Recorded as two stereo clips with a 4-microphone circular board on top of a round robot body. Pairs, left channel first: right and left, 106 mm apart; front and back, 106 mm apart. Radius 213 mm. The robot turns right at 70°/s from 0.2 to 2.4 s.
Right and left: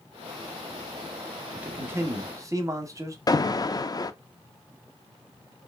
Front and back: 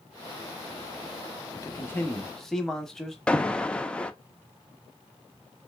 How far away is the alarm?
About 0.6 m.